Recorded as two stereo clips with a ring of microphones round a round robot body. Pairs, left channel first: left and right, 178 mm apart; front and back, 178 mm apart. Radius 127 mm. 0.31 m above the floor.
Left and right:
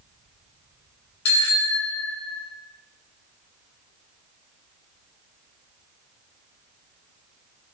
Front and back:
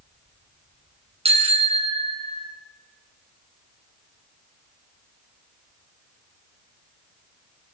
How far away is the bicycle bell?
About 2.5 m.